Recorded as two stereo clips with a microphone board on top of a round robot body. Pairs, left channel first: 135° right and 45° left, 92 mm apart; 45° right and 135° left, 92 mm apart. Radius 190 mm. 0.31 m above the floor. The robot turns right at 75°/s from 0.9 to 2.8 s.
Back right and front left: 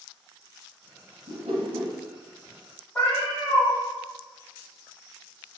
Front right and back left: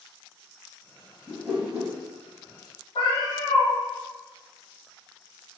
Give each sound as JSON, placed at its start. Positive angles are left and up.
{"t": 1.3, "sound": "a whoosh", "azimuth_deg": 40, "distance_m": 0.7}
{"t": 3.0, "sound": "a cat meowing", "azimuth_deg": -65, "distance_m": 0.9}